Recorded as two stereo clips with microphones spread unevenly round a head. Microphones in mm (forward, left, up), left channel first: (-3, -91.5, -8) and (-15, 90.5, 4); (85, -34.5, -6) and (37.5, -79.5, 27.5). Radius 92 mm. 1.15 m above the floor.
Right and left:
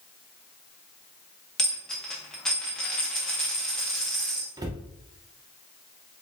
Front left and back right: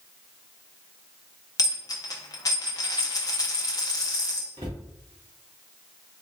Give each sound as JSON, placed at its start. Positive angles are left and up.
{"t": 1.6, "sound": "a dropped coin", "azimuth_deg": 5, "distance_m": 0.8}
{"t": 4.6, "sound": "a cupboard door", "azimuth_deg": 165, "distance_m": 0.6}